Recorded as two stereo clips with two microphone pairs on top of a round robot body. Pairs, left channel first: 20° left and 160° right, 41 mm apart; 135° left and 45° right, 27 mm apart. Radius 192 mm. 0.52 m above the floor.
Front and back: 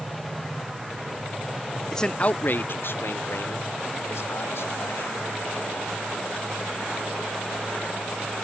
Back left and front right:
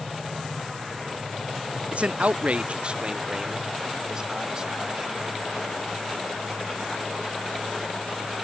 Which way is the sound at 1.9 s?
60° right.